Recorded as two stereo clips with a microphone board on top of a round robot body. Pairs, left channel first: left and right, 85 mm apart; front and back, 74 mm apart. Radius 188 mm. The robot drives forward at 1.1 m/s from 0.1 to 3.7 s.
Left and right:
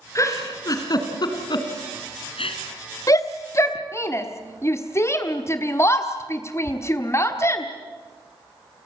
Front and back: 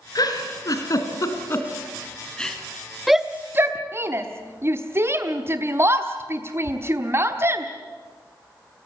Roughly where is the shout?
Left.